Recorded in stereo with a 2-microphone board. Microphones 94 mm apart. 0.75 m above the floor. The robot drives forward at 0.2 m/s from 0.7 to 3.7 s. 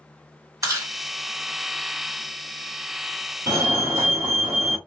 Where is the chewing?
35° right (ahead or behind), 1.7 m.